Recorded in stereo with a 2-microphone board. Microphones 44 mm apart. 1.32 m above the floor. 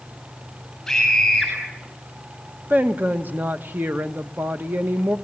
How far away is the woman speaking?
About 1.4 m.